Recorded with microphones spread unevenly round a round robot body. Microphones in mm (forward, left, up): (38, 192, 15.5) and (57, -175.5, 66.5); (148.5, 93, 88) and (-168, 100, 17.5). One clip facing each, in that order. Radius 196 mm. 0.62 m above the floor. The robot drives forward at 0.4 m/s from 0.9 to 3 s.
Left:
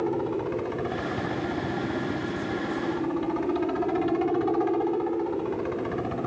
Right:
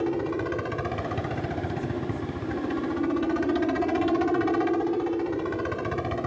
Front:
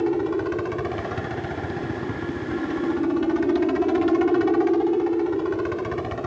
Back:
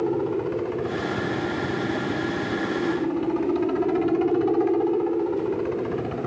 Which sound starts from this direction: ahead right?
A helicopter, at 0.0 s.